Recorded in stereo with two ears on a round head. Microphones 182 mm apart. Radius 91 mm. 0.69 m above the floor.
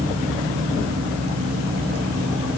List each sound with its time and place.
Only background noise.